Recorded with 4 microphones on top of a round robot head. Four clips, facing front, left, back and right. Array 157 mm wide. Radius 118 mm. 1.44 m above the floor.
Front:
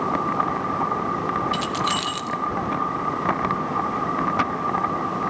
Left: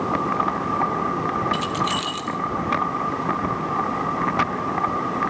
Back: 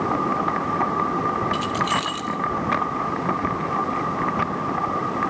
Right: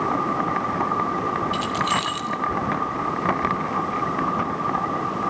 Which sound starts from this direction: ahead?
Keys jangling, at 1.5 s.